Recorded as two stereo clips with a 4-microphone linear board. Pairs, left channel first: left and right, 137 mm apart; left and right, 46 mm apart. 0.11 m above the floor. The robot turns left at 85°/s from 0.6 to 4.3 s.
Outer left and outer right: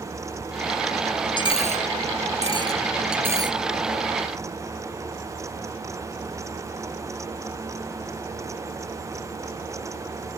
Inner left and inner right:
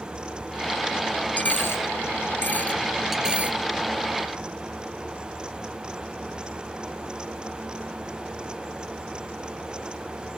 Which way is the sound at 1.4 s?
35° left (ahead or behind).